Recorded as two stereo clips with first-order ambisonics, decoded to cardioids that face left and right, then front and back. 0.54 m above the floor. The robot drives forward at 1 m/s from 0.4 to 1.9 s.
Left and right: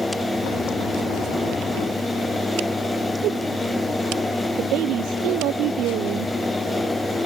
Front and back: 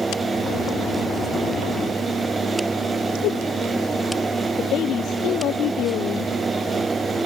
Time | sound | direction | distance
3.2 | a whoosh | 40° right | ?
4.6 | a woman speaking | 50° right | ?